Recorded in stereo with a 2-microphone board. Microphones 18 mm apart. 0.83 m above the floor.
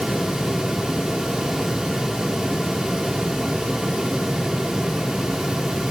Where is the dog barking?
I don't hear a dog barking.